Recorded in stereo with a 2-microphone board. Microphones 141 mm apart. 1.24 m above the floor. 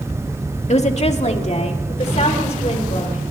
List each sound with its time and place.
0.7 s a woman speaking: 50° left (ahead or behind), 1.8 m